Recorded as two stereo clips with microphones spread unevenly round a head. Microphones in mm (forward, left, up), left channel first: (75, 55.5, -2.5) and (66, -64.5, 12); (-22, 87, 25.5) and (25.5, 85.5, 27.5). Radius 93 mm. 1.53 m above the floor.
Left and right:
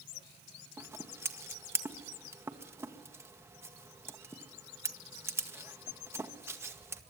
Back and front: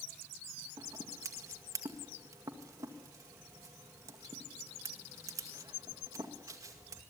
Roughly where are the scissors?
Ahead right.